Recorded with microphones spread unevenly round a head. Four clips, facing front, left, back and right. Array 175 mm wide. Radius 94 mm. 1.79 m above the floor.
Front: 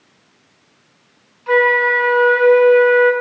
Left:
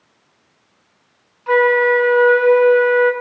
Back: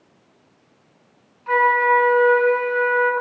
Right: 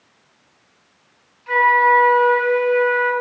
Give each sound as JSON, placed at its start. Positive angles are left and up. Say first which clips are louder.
{"t": 1.5, "sound": "a flute", "louder": "left 1 dB, front 2 dB", "azimuth_deg": 65, "distance_m": 5.5}